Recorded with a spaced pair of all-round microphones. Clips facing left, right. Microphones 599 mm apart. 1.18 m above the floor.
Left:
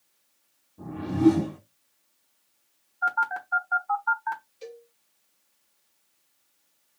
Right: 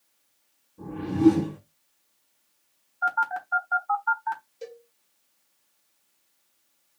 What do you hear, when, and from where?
0.8 s a whoosh: 5° left (ahead or behind), 1.1 m
3.0 s a phone buzzing: 5° right (ahead or behind), 1.2 m
4.6 s a cowbell: 65° right (ahead or behind), 2.5 m